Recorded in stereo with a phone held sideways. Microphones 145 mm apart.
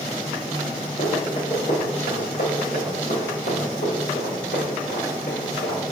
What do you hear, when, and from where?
1.0 s running footsteps: 55° left (ahead or behind), 4 m; by 5.8 s 75° left (ahead or behind), 8 m